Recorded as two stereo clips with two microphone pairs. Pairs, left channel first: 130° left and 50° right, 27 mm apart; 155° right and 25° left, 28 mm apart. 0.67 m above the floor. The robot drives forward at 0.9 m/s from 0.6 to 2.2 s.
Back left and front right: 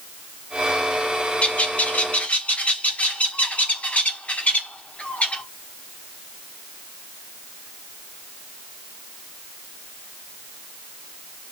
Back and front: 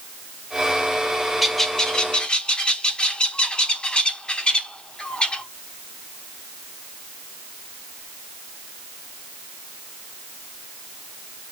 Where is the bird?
105° left, 0.6 m; by 5.4 s 150° left, 1.0 m.